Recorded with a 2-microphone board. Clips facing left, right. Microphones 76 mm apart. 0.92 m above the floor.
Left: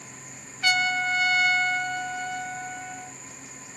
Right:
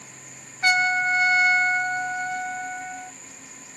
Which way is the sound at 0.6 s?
30° right (ahead or behind).